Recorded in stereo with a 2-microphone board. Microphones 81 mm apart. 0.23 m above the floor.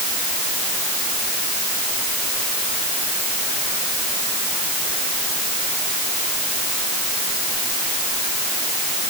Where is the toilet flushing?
No toilet flushing in this recording.